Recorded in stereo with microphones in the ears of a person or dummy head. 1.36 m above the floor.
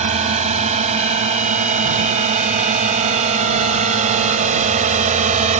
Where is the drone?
35° right (ahead or behind); by 5.6 s 40° right (ahead or behind).